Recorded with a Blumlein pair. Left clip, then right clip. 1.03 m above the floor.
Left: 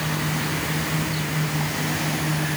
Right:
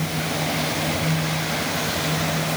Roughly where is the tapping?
No tapping in this recording.